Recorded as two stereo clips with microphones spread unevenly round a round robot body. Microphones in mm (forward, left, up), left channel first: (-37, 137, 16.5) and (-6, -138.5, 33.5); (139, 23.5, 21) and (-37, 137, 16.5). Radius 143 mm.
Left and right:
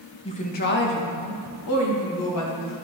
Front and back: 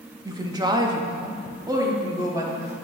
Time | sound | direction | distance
0.2 | a woman speaking | 110° left | 0.7 m